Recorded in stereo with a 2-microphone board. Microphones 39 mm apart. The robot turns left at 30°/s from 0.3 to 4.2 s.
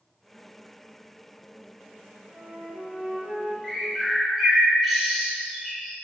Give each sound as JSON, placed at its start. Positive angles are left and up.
{"t": 2.3, "sound": "a flute", "azimuth_deg": -45, "distance_m": 1.2}
{"t": 3.6, "sound": "a bird", "side_deg": 5, "distance_m": 0.6}